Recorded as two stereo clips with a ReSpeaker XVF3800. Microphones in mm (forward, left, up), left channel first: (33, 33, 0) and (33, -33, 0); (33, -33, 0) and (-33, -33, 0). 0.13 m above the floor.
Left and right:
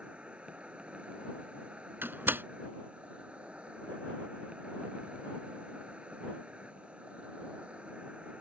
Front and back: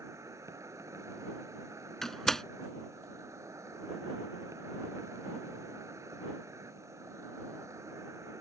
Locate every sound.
0.0 s an insect: 160° right
2.0 s a door slam: 80° right